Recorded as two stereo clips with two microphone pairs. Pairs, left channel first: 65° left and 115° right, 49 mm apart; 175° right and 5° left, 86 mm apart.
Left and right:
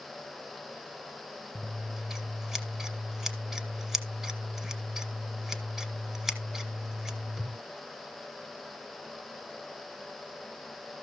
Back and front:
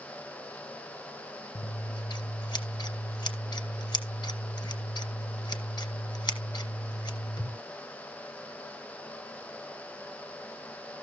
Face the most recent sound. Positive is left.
turn(degrees=160)